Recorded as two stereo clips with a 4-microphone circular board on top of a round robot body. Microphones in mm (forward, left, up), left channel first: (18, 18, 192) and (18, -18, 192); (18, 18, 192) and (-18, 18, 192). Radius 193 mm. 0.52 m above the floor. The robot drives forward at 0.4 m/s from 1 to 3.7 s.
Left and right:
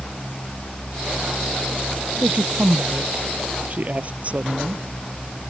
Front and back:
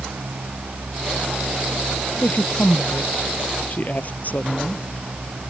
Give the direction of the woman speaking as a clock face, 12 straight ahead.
1 o'clock.